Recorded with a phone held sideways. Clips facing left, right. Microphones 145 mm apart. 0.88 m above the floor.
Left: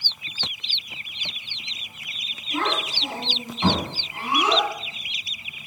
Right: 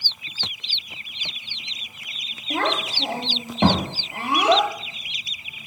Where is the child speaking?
70° right (ahead or behind), 1.7 m.